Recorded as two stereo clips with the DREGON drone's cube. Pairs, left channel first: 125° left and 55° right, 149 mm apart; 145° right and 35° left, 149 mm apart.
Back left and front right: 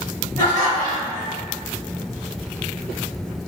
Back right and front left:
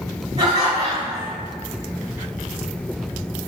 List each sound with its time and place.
0.4 s laughter: 75° left, 1.2 m